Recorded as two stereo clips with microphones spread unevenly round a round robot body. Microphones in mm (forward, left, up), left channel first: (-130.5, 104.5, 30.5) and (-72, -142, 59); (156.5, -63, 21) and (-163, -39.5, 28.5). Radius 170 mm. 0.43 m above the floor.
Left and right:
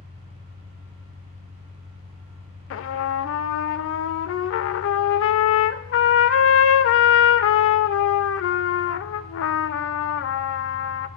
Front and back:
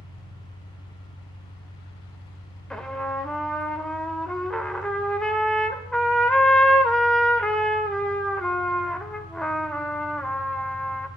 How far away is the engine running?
About 4 m.